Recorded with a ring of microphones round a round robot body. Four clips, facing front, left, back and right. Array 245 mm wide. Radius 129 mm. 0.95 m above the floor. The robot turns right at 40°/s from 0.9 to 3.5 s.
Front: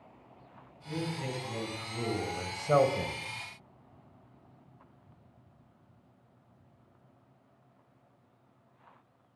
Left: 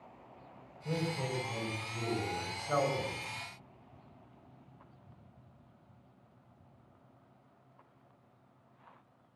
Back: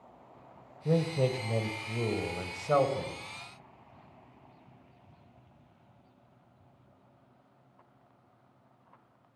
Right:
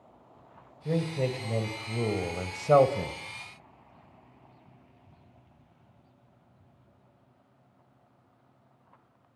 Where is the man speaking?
155° right, 4.5 m; by 3.2 s 65° right, 4.5 m.